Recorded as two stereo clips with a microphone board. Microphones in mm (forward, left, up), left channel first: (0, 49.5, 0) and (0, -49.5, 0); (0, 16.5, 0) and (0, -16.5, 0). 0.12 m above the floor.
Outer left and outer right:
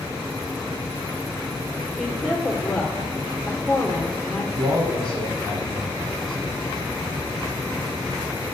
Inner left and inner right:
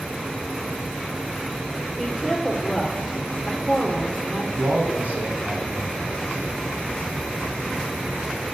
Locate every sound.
2.0 s a woman speaking: 5° right (ahead or behind), 2.5 m
4.6 s a man speaking: 60° right (ahead or behind), 3 m